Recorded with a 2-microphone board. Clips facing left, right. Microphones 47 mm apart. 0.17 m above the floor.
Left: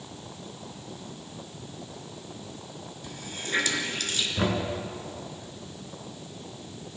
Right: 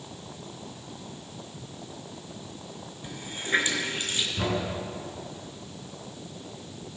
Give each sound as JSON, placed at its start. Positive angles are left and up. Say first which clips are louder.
{"t": 3.0, "sound": "a running tap", "louder": "right 3 dB", "side_deg": -30, "distance_m": 1.6}
{"t": 4.4, "sound": "knocking", "louder": "left 2 dB", "side_deg": 25, "distance_m": 1.9}